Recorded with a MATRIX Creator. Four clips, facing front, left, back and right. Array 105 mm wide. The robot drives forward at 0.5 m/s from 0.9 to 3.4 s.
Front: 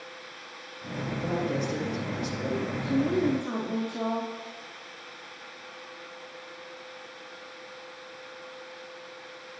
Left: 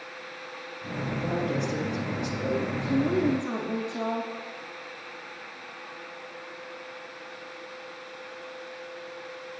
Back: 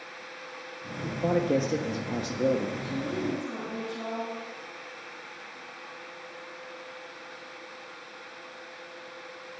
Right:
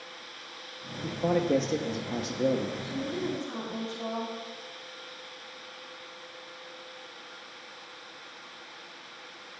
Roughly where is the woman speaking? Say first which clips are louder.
Left 8 dB, front 6 dB; ahead left.